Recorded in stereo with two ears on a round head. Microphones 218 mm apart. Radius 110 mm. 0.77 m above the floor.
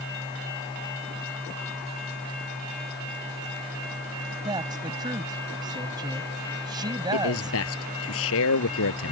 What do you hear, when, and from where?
4.4 s a woman speaking: 15° right (ahead or behind)
7.1 s a man speaking: 60° left (ahead or behind)